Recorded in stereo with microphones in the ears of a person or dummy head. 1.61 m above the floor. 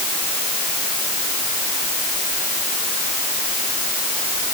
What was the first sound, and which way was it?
Only background noise.